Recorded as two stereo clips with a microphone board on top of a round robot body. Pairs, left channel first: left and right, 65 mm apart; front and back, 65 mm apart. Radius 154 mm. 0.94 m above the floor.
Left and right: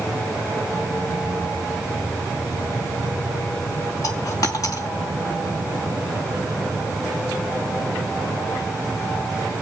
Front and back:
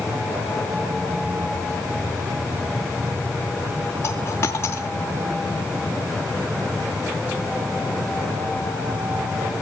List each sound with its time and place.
4.0 s a dropped coin: 60° left, 0.8 m